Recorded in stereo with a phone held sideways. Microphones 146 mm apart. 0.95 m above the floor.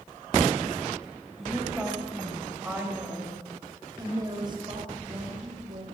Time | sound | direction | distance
1.4 | a woman speaking | 5° right (ahead or behind) | 6 m